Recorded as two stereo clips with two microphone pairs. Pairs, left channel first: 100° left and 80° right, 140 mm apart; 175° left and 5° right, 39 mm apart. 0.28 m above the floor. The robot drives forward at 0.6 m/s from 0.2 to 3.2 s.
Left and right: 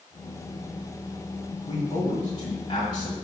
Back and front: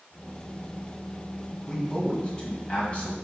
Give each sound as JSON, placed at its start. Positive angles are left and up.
{"t": 1.6, "sound": "a man speaking", "azimuth_deg": 100, "distance_m": 1.6}